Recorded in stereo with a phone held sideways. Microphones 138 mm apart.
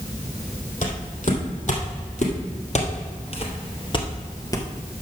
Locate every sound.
0.8 s footsteps: 65° left (ahead or behind), 2.5 m; by 4.7 s 20° left (ahead or behind), 1.4 m